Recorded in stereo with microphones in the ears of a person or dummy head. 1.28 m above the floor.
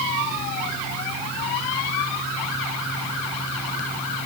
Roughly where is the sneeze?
No sneeze in this recording.